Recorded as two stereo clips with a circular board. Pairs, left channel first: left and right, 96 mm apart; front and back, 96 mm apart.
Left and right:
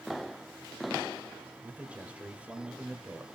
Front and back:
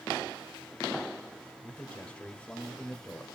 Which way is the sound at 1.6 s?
50° right.